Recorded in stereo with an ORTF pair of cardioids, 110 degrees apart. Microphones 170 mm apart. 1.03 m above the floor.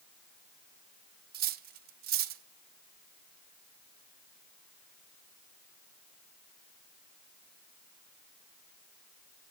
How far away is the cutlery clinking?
About 0.7 m.